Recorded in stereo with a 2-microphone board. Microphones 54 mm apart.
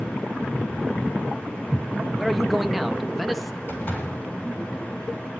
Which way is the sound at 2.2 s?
Centre (ahead or behind).